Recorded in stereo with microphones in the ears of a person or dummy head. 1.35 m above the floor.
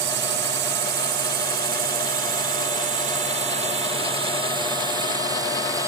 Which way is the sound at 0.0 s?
60° right (ahead or behind).